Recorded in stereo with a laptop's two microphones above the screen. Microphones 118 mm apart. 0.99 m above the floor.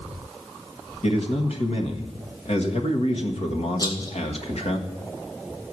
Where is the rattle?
35° left (ahead or behind), 1.4 m.